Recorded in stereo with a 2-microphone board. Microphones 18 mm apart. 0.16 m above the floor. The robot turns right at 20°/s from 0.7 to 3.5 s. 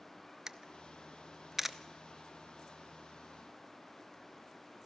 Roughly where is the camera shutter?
Right.